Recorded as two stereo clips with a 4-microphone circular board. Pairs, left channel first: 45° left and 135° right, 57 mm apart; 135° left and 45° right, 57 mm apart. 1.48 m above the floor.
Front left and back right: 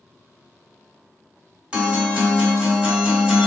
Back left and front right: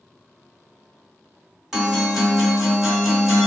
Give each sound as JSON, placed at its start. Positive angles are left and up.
{"t": 1.7, "sound": "a guitar", "azimuth_deg": -120, "distance_m": 1.3}